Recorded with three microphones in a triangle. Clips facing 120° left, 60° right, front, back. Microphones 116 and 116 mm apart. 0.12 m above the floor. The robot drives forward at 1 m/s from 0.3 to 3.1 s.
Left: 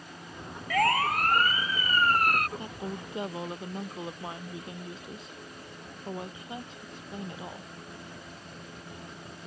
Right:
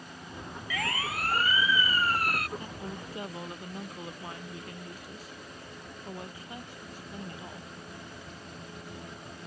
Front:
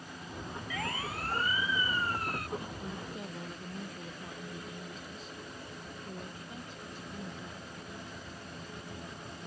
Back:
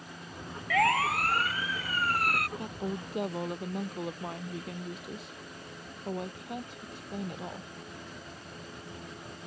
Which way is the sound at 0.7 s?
160° left.